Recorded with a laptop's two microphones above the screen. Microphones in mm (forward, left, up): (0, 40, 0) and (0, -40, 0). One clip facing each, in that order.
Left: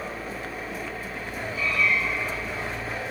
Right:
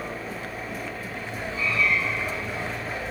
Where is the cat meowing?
30° right (ahead or behind), 5 m.